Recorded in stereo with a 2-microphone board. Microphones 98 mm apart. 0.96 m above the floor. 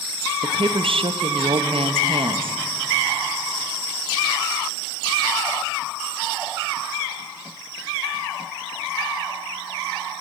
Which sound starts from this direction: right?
A woman speaking, at 0.4 s.